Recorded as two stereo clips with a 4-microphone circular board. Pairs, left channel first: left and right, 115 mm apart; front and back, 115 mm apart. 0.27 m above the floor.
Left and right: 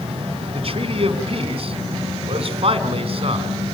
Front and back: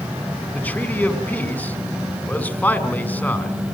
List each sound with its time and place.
0.5 s a man speaking: 75° right, 2 m